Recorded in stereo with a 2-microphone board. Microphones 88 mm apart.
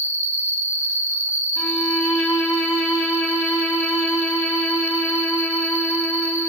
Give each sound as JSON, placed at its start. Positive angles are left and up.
{"t": 0.0, "sound": "an insect", "side_deg": 30, "distance_m": 1.0}
{"t": 1.6, "sound": "a violin", "side_deg": 0, "distance_m": 2.5}